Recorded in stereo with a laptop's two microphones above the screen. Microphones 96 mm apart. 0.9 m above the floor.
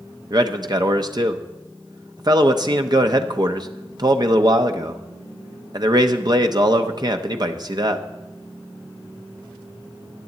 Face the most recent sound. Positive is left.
turn(degrees=-45)  # may be behind; listen again after turning